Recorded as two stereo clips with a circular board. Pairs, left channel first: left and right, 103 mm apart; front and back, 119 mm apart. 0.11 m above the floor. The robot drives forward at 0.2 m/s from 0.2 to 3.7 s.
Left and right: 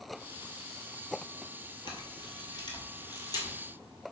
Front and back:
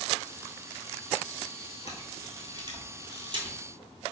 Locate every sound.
1.9 s a camera shutter: 125° left, 0.9 m; by 3.6 s 140° left, 1.1 m